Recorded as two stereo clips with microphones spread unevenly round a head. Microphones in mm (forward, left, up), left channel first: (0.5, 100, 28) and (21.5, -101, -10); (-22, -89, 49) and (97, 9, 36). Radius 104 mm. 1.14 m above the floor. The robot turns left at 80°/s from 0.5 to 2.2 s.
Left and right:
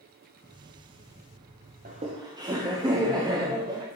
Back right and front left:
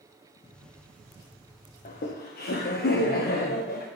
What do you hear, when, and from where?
1.9 s laughter: 120° right, 1.2 m; by 3.9 s 145° right, 1.2 m